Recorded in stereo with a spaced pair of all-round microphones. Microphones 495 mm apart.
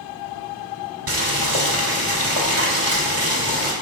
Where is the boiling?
90° right, 3 m.